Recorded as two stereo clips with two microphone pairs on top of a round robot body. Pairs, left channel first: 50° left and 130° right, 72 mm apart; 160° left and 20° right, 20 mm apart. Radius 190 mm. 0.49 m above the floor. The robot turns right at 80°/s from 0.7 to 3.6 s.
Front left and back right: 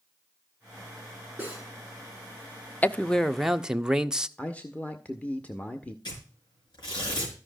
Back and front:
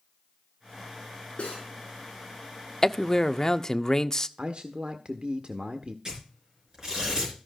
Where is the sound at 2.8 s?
100° left, 0.8 m; by 4.3 s 165° left, 0.8 m.